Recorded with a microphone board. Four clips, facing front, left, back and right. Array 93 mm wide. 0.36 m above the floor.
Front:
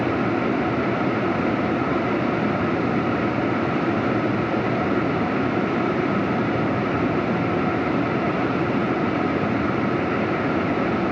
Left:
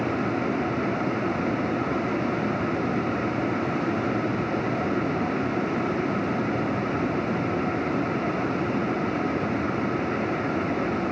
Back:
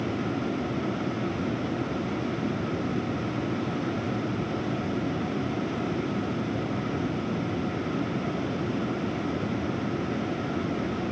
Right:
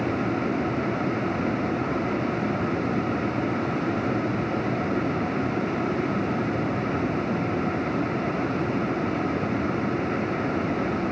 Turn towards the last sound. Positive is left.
No sound to turn to.